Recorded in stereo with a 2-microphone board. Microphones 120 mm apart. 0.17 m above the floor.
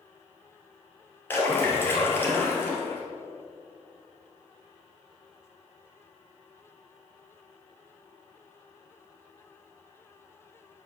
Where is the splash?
15° left (ahead or behind), 2.5 m.